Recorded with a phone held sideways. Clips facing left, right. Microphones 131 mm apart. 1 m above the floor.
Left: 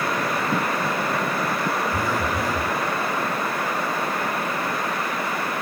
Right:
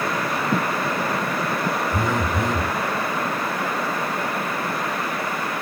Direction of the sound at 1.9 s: 20° right (ahead or behind).